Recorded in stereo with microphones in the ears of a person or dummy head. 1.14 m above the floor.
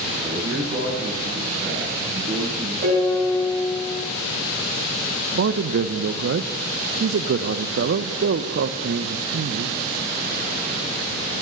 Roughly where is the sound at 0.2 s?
Right.